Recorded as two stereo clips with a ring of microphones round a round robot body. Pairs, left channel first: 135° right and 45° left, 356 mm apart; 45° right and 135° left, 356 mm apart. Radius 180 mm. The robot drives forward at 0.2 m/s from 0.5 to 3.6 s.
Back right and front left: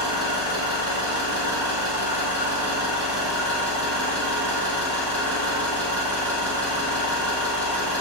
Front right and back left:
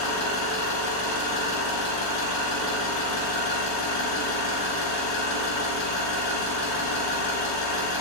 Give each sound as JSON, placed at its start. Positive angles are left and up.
{"t": 0.0, "sound": "an engine running", "azimuth_deg": -30, "distance_m": 1.7}